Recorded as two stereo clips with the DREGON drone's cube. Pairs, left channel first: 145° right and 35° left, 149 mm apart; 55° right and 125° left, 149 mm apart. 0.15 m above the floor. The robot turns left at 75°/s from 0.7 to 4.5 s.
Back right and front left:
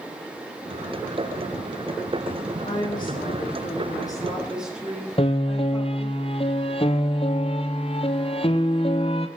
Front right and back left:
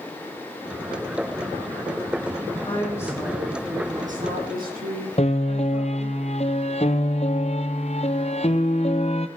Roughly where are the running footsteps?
I don't hear running footsteps.